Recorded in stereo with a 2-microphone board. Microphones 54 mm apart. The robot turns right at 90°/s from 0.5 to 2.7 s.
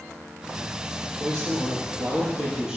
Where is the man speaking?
145° right, 4.5 m; by 2.8 s 10° right, 4.5 m.